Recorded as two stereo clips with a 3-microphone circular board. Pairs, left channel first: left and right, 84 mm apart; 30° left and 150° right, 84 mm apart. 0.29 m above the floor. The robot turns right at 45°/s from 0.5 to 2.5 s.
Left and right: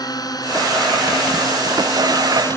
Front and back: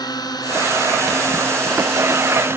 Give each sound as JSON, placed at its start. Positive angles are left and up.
{"t": 0.0, "sound": "a drone", "azimuth_deg": 55}